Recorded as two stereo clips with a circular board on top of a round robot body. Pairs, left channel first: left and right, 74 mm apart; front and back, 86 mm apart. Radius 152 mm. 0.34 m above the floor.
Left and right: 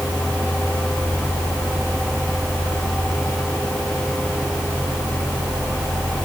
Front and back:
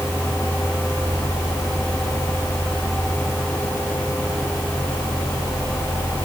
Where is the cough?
No cough in this recording.